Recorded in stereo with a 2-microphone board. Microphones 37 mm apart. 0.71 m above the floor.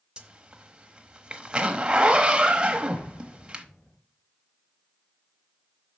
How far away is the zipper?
About 1.0 m.